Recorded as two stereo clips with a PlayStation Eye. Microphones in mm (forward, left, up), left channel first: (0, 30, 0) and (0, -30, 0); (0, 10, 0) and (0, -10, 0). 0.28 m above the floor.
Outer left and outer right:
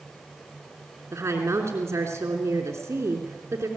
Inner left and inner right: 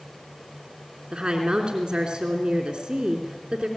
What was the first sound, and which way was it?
A woman speaking, 45° right (ahead or behind).